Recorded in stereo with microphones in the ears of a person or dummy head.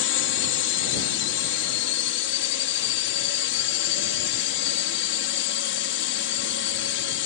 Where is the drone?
60° left (ahead or behind).